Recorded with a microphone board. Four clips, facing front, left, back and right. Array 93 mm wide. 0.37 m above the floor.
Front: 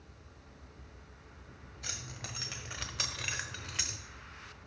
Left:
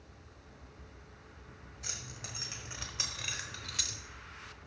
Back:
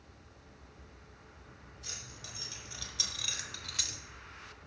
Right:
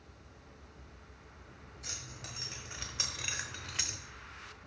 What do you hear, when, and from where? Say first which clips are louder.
1.8 s keys jangling: left 1 dB, front 6 dB; 15° left, 1.6 m; by 4.0 s 55° right, 0.8 m